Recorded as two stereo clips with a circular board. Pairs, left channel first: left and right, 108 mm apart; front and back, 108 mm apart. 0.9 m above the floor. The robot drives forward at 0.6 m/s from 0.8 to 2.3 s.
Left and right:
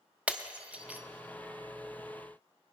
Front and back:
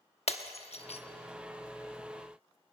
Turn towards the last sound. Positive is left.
turn(degrees=-95)